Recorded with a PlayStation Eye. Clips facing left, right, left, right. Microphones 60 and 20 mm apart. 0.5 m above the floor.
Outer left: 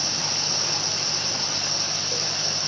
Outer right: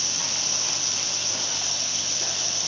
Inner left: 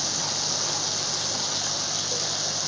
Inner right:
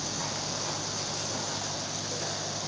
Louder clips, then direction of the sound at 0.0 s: Outer left 3 dB, inner left 6 dB; 45° left (ahead or behind).